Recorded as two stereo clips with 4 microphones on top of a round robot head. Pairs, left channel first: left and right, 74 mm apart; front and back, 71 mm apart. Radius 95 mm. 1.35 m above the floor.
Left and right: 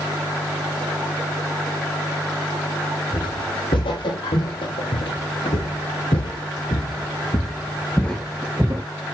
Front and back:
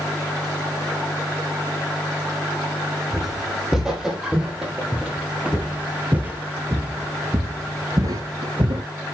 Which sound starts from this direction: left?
Footsteps, at 3.1 s.